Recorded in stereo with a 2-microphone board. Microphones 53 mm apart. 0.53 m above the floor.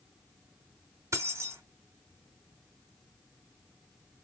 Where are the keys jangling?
70° right (ahead or behind), 1.0 m.